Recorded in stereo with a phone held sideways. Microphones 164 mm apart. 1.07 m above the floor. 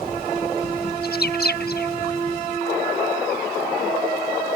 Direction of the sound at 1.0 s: 75° left (ahead or behind).